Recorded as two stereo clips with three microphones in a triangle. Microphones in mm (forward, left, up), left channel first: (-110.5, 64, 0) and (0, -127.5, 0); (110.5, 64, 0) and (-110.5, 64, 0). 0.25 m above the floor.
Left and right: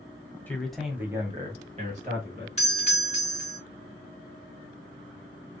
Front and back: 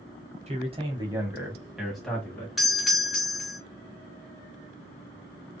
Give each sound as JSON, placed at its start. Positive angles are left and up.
{"t": 0.5, "sound": "a man speaking", "azimuth_deg": -165, "distance_m": 1.4}
{"t": 2.6, "sound": "a doorbell", "azimuth_deg": 90, "distance_m": 1.6}